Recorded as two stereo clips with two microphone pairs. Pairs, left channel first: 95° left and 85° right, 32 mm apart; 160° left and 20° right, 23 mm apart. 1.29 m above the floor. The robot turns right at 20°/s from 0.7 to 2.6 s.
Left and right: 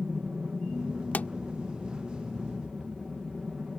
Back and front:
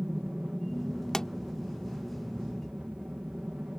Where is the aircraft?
60° right; by 3.8 s 20° right.